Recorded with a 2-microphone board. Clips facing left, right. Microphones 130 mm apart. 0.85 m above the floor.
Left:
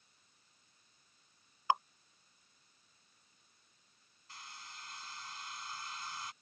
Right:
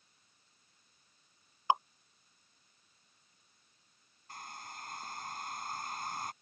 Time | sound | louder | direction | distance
1.7 | dripping | right 2 dB | 20° right (ahead or behind) | ?
4.3 | a hair dryer | right 6 dB | 55° right (ahead or behind) | ?